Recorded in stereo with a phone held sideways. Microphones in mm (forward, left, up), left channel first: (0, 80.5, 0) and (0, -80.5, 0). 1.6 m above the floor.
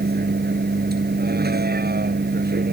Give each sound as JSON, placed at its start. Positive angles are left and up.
{"t": 0.0, "sound": "a vehicle", "side_deg": -90}